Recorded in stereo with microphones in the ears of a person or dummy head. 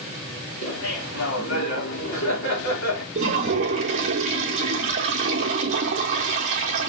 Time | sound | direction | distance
0.6 | laughter | 55° left (ahead or behind) | 4 m
3.1 | a toilet flushing | 30° right (ahead or behind) | 1.3 m